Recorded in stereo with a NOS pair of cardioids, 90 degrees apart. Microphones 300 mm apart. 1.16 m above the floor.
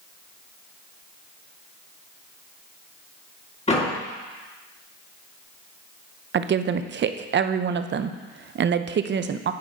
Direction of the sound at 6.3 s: 40° right.